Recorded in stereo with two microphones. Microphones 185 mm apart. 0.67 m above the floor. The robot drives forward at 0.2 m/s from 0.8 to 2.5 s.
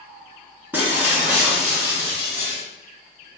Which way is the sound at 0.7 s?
10° right (ahead or behind).